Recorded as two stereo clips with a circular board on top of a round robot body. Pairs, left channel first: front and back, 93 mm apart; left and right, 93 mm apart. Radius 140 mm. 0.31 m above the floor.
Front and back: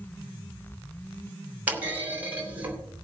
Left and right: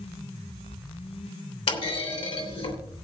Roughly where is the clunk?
Left.